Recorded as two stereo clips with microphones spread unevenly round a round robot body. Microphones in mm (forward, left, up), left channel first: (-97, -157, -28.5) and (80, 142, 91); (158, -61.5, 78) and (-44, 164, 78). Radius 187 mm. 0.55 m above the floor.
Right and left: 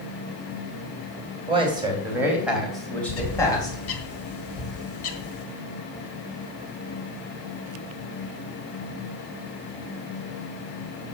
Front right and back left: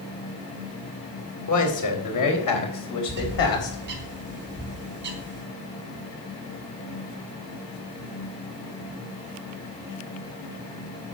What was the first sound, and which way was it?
A man speaking, 20° right.